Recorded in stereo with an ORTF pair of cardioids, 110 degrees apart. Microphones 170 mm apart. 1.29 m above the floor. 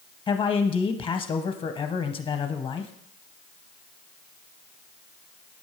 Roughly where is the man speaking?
Ahead left.